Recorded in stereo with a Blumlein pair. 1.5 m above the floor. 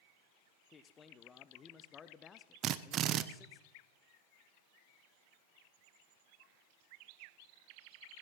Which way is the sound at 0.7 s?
20° left.